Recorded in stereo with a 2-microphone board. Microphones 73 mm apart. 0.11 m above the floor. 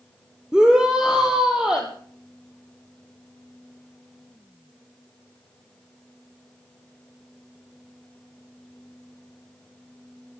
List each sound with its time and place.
0.5 s a shout: 10° right (ahead or behind), 2 m